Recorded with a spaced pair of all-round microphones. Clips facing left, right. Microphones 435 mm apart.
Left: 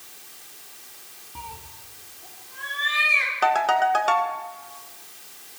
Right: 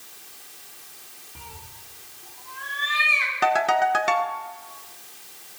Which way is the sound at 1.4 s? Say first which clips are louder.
Left 3 dB; 15° left (ahead or behind).